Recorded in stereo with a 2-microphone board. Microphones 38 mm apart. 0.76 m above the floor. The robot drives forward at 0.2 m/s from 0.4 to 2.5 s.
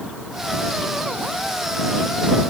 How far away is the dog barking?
No dog barking in this recording.